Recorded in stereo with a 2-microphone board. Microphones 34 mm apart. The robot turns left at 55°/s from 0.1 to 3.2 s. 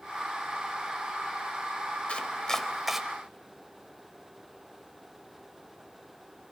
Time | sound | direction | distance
2.1 | chopping | 35° left (ahead or behind) | 1.0 m